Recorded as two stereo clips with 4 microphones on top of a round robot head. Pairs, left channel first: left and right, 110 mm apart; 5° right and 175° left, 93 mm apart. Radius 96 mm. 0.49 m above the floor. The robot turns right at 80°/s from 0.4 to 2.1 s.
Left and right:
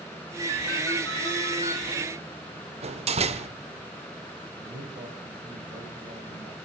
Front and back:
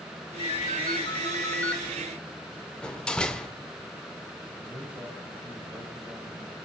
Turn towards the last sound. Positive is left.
turn(degrees=-125)